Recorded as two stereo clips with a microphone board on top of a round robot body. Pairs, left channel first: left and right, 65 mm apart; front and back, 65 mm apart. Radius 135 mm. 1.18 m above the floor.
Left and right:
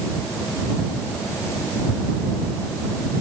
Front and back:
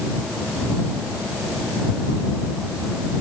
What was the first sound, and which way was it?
Only background noise.